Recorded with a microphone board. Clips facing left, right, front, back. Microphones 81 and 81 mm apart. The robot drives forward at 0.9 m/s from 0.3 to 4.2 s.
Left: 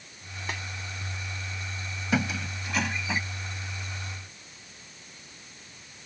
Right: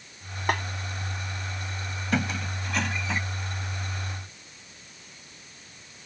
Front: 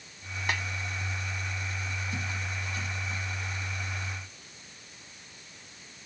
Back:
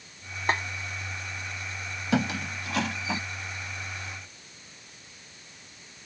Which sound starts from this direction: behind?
A squeak, at 2.1 s.